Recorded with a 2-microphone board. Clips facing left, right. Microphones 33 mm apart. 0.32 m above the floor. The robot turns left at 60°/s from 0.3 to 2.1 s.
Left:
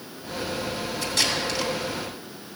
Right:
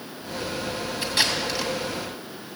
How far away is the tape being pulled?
About 3 m.